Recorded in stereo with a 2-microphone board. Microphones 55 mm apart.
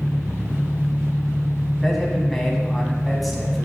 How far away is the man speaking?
About 2.5 m.